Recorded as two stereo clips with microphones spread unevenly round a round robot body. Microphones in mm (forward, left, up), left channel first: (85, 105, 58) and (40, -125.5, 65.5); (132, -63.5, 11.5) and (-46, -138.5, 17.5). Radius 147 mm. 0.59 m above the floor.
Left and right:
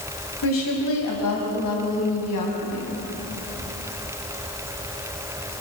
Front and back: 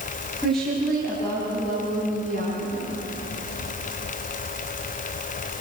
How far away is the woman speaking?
About 3.5 m.